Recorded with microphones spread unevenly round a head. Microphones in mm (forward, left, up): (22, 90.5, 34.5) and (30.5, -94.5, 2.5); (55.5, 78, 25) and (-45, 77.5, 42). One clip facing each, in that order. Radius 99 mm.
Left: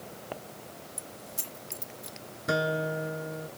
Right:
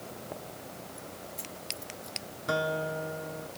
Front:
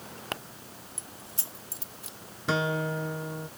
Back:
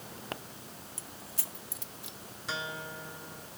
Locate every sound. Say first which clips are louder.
1.0 s keys jangling: right 2 dB, front 1 dB; 70° left; by 2.2 s 35° left
2.5 s a guitar: left 2 dB, front 11 dB; 30° left